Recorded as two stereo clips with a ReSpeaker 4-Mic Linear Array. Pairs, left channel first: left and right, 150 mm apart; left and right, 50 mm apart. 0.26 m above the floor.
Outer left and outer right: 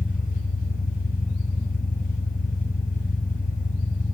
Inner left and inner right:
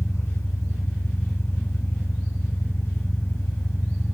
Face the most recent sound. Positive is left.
turn(degrees=65)  # may be behind; listen again after turning